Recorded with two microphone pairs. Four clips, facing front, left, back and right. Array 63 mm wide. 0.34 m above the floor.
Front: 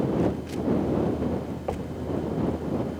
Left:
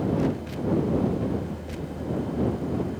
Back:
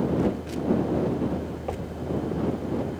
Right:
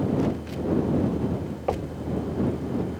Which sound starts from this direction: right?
Knocking, at 1.7 s.